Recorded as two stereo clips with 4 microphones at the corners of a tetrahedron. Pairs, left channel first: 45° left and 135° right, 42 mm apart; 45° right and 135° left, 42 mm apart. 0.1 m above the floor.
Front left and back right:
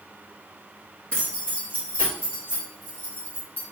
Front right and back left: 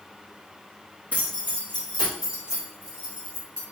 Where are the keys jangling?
100° left, 1.8 m; by 3.6 s 80° left, 3.5 m.